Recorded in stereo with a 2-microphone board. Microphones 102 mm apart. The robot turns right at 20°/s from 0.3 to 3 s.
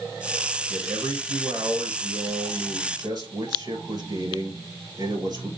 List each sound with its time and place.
0.7 s a man speaking: 175° right, 2 m; by 5.5 s 130° right, 2 m